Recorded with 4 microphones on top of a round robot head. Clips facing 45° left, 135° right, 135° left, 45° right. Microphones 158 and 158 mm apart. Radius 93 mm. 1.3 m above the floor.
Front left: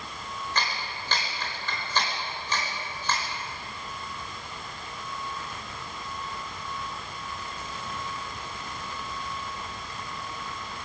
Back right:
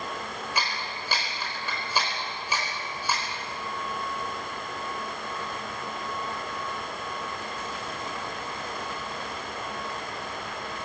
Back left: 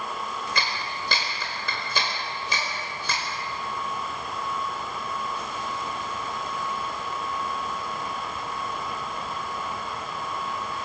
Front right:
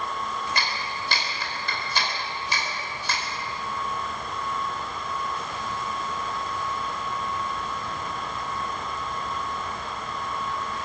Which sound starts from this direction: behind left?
A clap, at 0.6 s.